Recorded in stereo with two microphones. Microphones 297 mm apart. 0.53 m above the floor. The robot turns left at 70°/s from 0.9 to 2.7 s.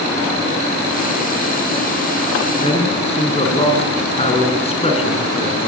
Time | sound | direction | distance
2.6 | a man speaking | 15° left (ahead or behind) | 5.5 m